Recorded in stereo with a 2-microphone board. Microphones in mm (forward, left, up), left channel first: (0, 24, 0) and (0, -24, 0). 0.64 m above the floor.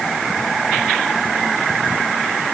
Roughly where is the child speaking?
No child speaking in this recording.